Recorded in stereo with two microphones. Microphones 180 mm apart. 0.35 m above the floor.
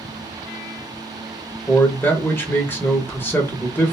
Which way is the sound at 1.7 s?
10° left (ahead or behind).